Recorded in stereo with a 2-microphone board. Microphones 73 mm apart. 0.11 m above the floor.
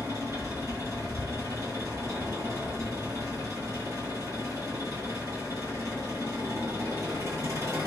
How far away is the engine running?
About 1.4 m.